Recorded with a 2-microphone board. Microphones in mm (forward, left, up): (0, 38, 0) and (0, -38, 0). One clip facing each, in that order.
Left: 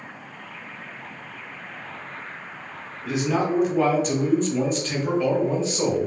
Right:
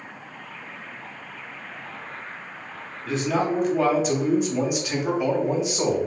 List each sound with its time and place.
3.0 s a man speaking: 10° left (ahead or behind), 0.8 m; by 6.1 s 15° right (ahead or behind), 1.4 m